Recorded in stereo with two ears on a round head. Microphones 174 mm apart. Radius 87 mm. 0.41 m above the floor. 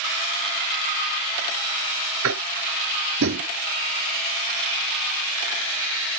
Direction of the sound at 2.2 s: 75° right (ahead or behind).